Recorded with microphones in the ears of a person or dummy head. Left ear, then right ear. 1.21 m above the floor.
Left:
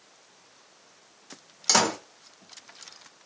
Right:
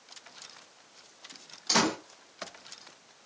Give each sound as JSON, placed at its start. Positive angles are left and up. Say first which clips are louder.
{"t": 1.7, "sound": "a door slam", "louder": "left 4 dB", "side_deg": 55, "distance_m": 1.1}